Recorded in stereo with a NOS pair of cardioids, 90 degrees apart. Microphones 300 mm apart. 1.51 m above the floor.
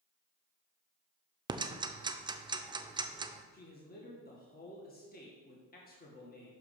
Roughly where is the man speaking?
Ahead left.